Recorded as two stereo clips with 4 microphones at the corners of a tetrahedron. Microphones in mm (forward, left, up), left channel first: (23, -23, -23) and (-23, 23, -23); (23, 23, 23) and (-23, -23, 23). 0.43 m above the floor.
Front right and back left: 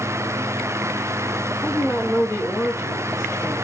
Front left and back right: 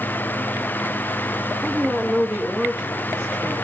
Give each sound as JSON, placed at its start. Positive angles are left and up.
{"t": 1.6, "sound": "a woman speaking", "azimuth_deg": -40, "distance_m": 1.5}